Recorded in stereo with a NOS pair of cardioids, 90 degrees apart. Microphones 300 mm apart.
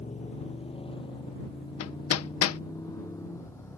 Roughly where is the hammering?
Ahead left.